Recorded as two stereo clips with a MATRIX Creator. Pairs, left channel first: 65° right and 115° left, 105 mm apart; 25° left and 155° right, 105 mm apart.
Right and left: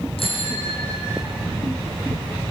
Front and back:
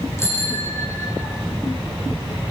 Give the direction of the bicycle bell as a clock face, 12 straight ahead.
1 o'clock.